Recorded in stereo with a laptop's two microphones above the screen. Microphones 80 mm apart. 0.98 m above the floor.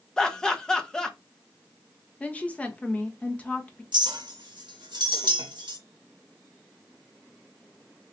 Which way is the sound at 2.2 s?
15° left (ahead or behind).